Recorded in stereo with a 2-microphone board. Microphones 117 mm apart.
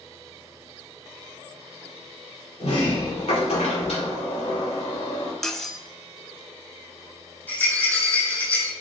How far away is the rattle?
About 3 m.